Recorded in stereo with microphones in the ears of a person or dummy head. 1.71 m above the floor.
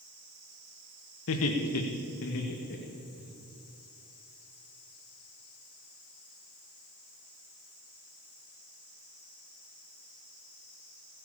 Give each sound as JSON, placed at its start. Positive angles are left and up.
{"t": 1.3, "sound": "laughter", "side_deg": 75, "distance_m": 2.0}